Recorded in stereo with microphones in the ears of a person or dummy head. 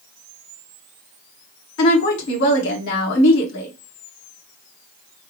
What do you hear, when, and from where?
1.8 s a woman speaking: 65° left (ahead or behind), 1.5 m